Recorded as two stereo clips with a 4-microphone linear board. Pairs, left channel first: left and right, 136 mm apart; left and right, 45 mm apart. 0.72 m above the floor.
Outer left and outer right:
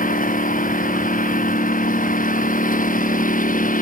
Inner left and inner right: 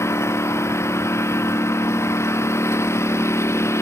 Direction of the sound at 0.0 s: 70° left (ahead or behind).